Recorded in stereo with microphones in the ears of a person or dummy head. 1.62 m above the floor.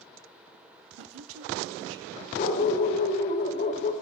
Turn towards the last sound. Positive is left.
turn(degrees=45)  # may be behind; listen again after turning